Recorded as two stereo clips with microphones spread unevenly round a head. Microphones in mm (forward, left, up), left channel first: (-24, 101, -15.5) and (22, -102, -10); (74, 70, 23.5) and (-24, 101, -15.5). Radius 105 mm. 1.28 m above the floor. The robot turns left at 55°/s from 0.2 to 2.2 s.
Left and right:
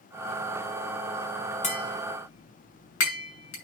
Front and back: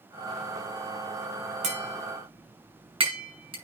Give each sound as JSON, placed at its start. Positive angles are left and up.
{"t": 1.6, "sound": "tapping", "azimuth_deg": 160, "distance_m": 6.5}